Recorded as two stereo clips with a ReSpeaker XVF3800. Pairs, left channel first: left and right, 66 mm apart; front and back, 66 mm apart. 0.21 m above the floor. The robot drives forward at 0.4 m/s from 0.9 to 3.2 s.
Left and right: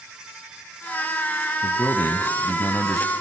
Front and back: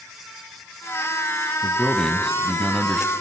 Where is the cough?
No cough in this recording.